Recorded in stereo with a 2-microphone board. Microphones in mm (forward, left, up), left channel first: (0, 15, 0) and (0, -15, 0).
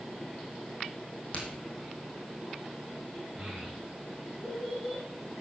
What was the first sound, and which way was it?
A crack, 35° left (ahead or behind).